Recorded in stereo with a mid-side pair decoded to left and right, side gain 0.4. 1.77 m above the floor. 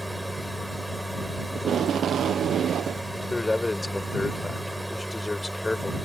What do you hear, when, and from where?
0.0 s a machine running: 5° right
1.6 s tape being pulled: 65° right
3.3 s a man speaking: 20° left